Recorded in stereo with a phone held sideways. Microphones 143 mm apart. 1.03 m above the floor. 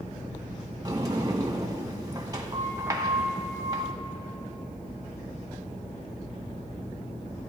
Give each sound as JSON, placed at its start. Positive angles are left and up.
{"t": 0.8, "sound": "a sliding door", "side_deg": -25, "distance_m": 1.0}